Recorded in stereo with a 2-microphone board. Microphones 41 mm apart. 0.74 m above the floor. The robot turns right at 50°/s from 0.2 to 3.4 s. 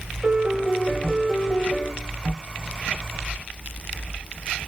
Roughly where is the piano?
Ahead right.